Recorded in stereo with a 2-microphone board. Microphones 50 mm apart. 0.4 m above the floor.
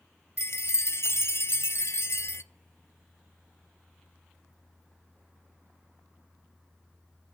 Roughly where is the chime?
Left.